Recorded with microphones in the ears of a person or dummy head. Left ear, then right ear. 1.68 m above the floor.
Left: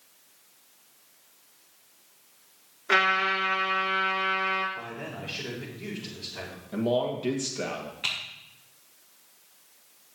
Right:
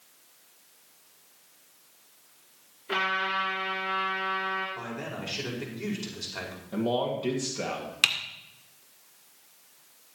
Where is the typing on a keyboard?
50° right (ahead or behind), 1.8 m.